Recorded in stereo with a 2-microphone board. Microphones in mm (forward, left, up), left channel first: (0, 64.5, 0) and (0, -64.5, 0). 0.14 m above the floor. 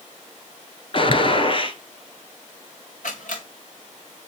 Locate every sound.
0.9 s a gunshot: 40° left (ahead or behind), 1.0 m
3.0 s a camera shutter: 65° left (ahead or behind), 3.5 m